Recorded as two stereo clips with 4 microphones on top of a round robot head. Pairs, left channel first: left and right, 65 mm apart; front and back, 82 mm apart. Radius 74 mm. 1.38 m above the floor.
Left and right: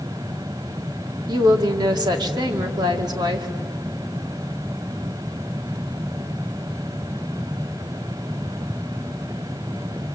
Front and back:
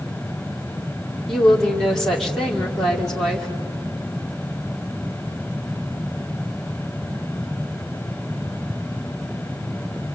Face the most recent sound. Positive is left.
turn(degrees=-90)